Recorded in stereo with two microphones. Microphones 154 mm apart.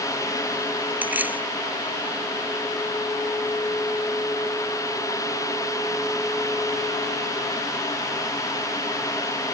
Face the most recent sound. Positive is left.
turn(degrees=-10)  # may be behind; listen again after turning